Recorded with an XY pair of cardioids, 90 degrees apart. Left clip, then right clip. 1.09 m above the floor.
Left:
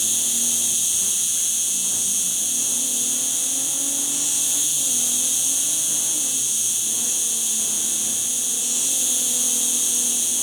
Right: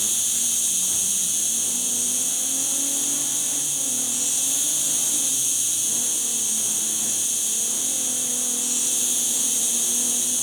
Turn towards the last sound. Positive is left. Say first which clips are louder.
# left 2 dB
turn(degrees=25)